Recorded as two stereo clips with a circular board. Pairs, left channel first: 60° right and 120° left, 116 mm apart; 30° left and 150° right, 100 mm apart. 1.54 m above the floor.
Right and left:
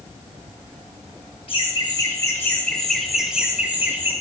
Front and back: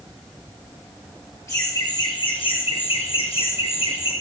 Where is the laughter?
30° right, 1.0 m; by 4.1 s 50° left, 1.7 m.